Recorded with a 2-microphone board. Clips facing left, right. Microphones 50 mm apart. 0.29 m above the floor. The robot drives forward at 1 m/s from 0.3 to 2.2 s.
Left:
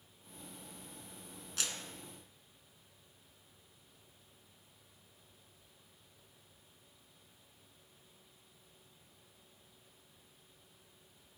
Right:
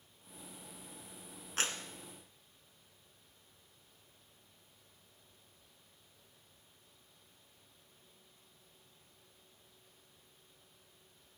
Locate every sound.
1.6 s a clap: 40° right (ahead or behind), 2.5 m; by 1.8 s 35° right (ahead or behind), 2.5 m